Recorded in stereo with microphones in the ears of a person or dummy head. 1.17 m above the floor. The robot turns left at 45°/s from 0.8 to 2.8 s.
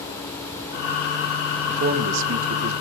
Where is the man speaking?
45° right, 1.2 m; by 2.7 s 90° right, 1.2 m.